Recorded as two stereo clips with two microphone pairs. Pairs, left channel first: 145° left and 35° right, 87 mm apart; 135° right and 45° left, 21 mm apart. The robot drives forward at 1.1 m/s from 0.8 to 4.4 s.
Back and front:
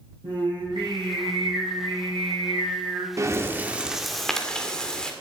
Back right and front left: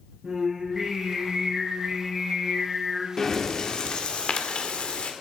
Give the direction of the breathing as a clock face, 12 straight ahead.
2 o'clock.